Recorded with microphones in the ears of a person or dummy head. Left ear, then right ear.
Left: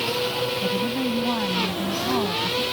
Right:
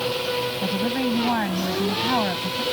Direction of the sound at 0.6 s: 55° right (ahead or behind).